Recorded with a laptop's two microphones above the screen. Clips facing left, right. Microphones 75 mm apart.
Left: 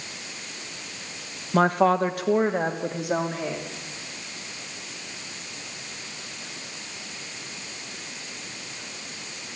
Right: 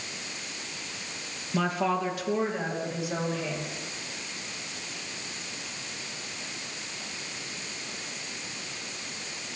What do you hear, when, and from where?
1.5 s a woman speaking: 45° left (ahead or behind), 1.1 m; by 3.6 s 55° left (ahead or behind), 3.5 m